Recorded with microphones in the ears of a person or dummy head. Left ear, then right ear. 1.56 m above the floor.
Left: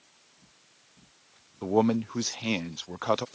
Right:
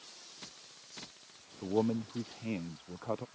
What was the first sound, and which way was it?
A man speaking, 60° left (ahead or behind).